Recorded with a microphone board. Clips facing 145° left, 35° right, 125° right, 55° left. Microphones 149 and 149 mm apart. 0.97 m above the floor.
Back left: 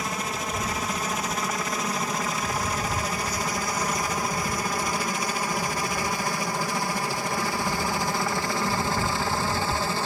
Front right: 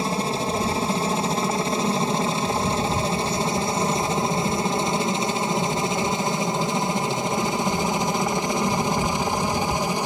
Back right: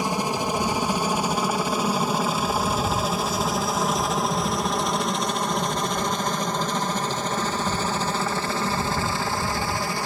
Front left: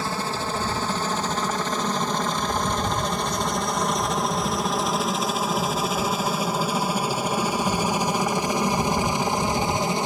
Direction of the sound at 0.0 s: 60° right.